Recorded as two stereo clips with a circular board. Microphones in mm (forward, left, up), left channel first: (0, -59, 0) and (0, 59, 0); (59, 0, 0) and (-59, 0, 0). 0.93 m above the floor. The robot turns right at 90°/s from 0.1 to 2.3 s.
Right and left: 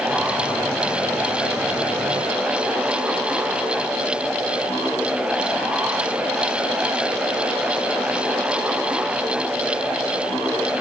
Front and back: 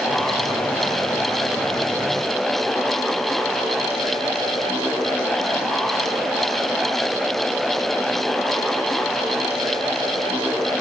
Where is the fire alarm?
I don't hear a fire alarm.